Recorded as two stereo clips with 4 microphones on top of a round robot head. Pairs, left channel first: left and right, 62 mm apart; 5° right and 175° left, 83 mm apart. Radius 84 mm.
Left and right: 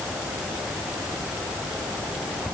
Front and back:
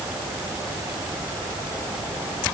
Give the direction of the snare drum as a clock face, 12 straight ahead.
I don't hear a snare drum.